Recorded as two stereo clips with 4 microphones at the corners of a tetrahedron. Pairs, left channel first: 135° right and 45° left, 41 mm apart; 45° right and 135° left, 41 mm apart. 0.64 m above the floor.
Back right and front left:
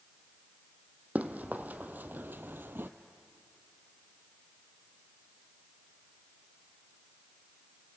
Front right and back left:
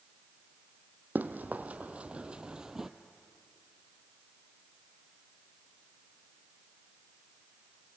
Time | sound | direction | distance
1.1 | running footsteps | 95° left | 1.5 m